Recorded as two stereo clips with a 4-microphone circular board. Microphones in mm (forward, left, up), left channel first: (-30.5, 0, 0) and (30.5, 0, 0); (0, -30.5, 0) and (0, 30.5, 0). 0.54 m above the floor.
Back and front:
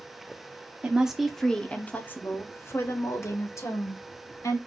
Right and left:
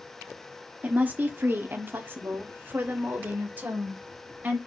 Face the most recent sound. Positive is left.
turn(degrees=155)